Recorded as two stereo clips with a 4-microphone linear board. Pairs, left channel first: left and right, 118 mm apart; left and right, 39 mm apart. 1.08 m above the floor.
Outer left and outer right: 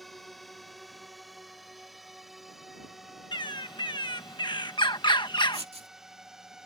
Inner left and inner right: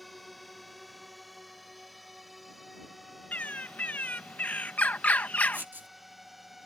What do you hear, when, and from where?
0.0 s a drone: centre (ahead or behind); by 6.7 s 5° right (ahead or behind)
3.3 s a bird: 40° left (ahead or behind)
5.5 s writing: 60° right (ahead or behind)